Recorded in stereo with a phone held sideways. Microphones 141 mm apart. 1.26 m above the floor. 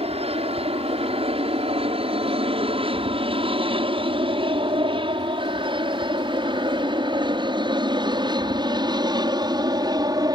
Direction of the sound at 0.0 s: 45° right (ahead or behind).